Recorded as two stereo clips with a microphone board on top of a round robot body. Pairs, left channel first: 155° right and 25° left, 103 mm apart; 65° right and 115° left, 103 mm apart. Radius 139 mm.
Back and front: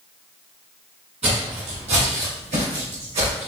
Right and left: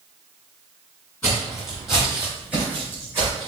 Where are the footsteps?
5° left, 1.5 m; by 3.5 s 45° left, 2.5 m.